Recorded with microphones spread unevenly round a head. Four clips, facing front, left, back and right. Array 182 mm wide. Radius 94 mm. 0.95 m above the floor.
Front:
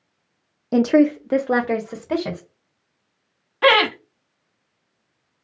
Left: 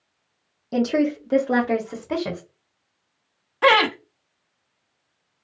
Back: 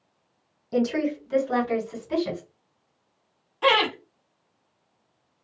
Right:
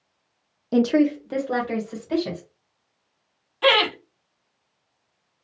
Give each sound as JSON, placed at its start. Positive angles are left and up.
{"t": 0.7, "sound": "a woman speaking", "azimuth_deg": -15, "distance_m": 0.5}
{"t": 3.6, "sound": "laughter", "azimuth_deg": 40, "distance_m": 0.8}